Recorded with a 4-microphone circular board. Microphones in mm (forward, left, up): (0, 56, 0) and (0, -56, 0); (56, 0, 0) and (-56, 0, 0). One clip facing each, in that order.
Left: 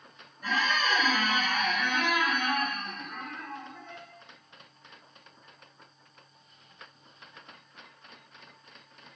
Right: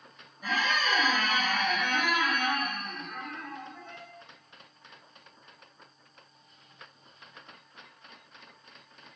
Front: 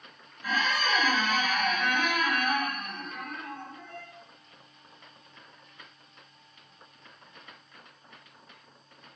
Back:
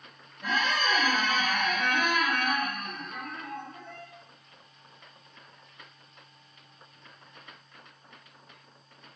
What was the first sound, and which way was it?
A squeak, 175° right.